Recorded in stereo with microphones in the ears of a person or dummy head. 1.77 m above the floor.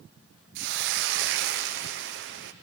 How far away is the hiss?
About 0.9 m.